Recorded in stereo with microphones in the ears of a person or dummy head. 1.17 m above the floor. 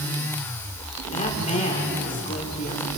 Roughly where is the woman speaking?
Left.